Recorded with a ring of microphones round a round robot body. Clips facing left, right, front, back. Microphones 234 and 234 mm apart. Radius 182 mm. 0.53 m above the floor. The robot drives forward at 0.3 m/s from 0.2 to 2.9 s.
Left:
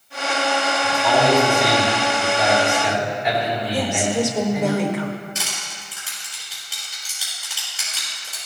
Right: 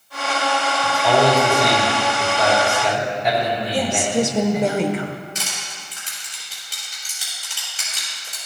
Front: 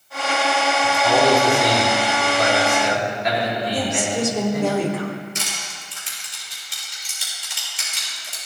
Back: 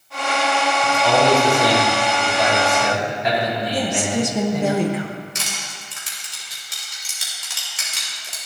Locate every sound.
0.8 s a man speaking: 150° right, 3 m; by 4.7 s 155° right, 3.5 m
3.7 s a woman speaking: 125° right, 0.8 m
5.3 s crushing: 165° right, 3 m